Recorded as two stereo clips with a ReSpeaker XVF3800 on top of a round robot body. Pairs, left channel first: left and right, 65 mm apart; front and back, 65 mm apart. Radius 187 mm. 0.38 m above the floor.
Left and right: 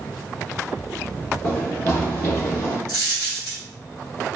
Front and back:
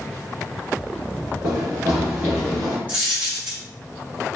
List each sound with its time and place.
1.4 s running footsteps: 170° left, 1.0 m; by 2.8 s 55° left, 0.7 m
2.9 s a dropped coin: 110° left, 0.6 m